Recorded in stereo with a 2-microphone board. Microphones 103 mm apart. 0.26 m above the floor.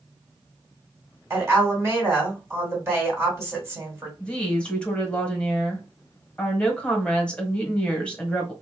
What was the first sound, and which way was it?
A woman speaking, 25° right (ahead or behind).